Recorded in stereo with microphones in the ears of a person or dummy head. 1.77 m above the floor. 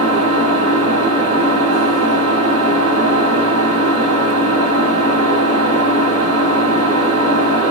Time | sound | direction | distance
0.0 | an engine running | 35° right (ahead or behind) | 2 m